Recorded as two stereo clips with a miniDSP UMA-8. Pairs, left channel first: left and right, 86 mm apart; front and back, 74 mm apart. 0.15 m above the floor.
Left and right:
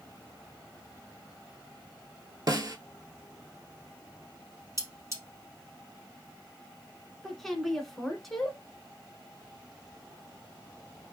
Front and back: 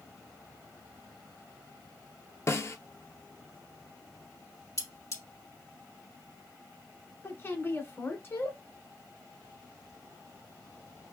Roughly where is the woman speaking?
Ahead.